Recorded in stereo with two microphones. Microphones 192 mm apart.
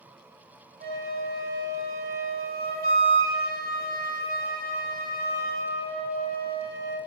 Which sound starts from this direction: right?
A flute, at 0.8 s.